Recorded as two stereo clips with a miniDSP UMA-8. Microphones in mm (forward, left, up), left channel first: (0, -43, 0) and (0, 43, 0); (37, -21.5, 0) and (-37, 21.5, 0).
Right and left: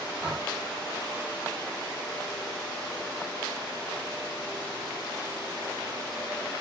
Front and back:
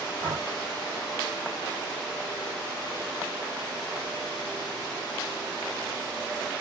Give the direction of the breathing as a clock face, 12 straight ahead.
8 o'clock.